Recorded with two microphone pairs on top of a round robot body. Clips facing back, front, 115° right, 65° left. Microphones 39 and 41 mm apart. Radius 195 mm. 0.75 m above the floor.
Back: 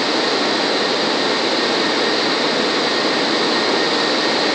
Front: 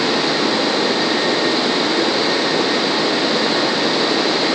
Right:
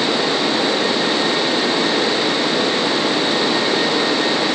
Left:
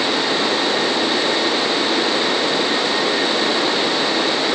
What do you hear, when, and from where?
Only background noise.